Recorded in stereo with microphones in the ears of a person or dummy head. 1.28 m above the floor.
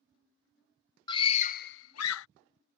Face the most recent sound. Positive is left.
turn(degrees=70)  # may be behind; listen again after turning